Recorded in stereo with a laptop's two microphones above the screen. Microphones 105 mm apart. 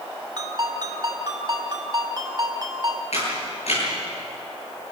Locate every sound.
0.4 s a ringtone: 45° right (ahead or behind), 3 m
3.1 s a camera shutter: 75° left (ahead or behind), 9.5 m